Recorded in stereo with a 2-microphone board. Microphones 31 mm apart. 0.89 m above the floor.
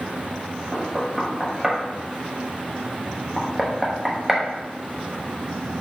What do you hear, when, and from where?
0.7 s knocking: 15° right (ahead or behind), 0.7 m